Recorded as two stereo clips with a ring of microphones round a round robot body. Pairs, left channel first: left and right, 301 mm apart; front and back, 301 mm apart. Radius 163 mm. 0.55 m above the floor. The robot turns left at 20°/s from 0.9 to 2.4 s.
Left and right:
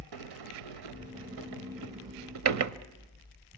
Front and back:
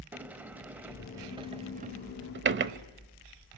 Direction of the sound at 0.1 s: 95° right.